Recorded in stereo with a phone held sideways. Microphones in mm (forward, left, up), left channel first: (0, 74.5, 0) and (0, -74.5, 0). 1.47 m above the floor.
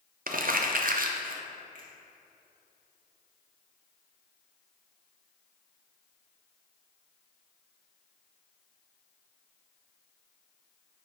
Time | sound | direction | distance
0.3 | crumpling | 70° right (ahead or behind) | 0.5 m
1.8 | a finger snap | 60° right (ahead or behind) | 1.5 m